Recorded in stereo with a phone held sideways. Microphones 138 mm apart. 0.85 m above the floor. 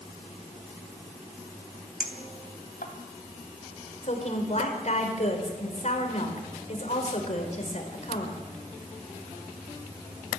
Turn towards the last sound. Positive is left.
turn(degrees=55)  # may be behind; listen again after turning